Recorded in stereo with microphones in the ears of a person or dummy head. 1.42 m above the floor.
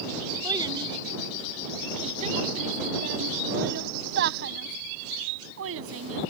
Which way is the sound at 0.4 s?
20° right (ahead or behind).